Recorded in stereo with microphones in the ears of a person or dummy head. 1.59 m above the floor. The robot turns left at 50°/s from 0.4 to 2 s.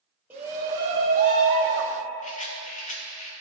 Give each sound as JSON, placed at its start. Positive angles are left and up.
{"t": 0.3, "sound": "a shout", "azimuth_deg": -10, "distance_m": 0.8}
{"t": 2.2, "sound": "a rattle", "side_deg": 40, "distance_m": 0.6}